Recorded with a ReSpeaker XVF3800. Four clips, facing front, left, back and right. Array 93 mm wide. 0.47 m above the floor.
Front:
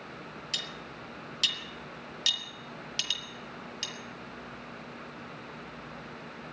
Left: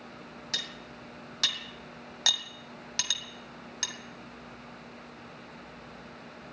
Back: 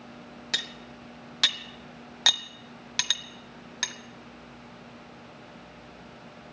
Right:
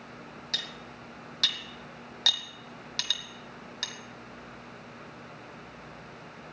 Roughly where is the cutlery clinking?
Behind.